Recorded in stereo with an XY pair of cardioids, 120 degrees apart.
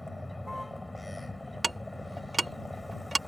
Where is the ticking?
20° right.